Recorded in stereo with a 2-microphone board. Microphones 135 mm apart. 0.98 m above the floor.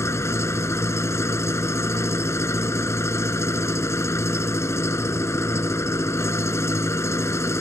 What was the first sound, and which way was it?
An engine running, 20° left (ahead or behind).